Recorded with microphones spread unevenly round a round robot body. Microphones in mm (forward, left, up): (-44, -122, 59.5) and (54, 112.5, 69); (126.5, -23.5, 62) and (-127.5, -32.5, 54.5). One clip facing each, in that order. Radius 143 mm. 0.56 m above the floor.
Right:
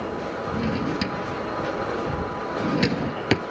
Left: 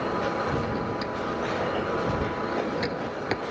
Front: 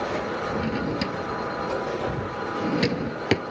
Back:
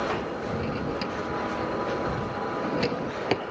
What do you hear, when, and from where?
0.6 s a drawer: 65° right